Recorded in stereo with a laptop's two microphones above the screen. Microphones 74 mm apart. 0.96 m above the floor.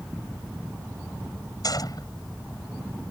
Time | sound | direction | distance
1.6 | a gunshot | 60° left (ahead or behind) | ?